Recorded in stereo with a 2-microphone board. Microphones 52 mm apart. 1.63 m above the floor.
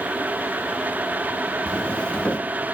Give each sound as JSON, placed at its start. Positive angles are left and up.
{"t": 1.7, "sound": "footsteps", "side_deg": 25, "distance_m": 1.7}